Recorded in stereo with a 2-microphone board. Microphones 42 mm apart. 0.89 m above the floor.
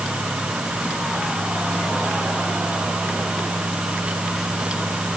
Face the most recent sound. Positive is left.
No sound to turn to.